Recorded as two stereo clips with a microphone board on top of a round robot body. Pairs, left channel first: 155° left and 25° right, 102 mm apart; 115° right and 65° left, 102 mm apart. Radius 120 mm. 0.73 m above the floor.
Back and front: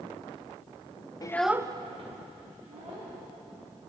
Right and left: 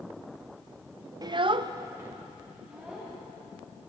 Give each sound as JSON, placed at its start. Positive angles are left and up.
{"t": 1.2, "sound": "a child speaking", "azimuth_deg": 110, "distance_m": 0.6}